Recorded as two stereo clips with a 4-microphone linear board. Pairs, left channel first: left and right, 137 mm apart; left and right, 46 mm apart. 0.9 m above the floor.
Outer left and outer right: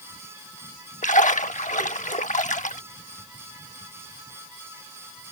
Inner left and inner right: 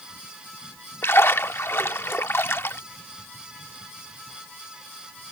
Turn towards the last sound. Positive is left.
turn(degrees=65)  # may be behind; listen again after turning